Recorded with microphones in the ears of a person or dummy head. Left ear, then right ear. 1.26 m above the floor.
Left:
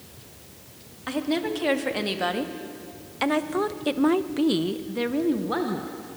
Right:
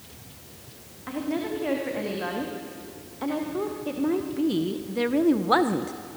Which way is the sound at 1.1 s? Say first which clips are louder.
Left 3 dB; 80° left.